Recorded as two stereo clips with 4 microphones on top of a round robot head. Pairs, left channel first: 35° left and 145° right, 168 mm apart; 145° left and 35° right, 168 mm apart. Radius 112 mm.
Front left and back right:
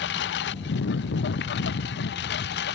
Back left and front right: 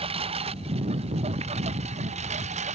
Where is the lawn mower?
20° left; by 2.8 s 15° left.